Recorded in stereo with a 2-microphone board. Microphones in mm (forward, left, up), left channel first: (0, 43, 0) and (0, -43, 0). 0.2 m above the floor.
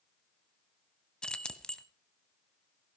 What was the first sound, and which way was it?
Keys jangling, 10° left (ahead or behind).